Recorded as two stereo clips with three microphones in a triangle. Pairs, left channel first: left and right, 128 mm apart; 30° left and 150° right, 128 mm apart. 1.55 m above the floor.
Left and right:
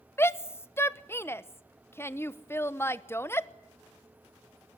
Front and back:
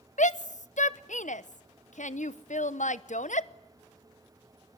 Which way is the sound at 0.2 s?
20° left.